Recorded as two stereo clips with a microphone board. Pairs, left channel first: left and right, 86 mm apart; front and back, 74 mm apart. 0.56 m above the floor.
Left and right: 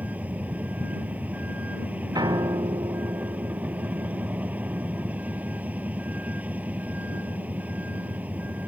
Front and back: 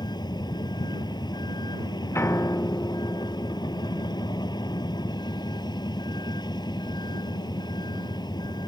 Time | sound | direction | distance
0.0 | a vehicle | 20° right | ?
2.1 | a piano | 55° right | ?